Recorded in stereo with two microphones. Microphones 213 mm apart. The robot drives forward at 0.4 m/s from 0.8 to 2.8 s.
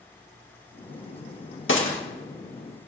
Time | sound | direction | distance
1.7 | a gunshot | 70° left (ahead or behind) | 2.0 m